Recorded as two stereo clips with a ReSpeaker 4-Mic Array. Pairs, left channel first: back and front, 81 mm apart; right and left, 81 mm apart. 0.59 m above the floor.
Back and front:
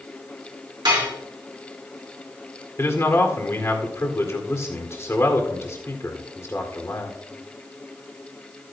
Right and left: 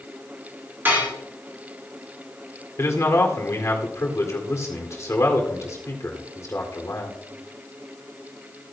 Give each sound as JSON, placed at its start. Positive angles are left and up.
{"t": 0.8, "sound": "dishes clattering", "azimuth_deg": 25, "distance_m": 4.0}
{"t": 2.8, "sound": "a man speaking", "azimuth_deg": -135, "distance_m": 1.9}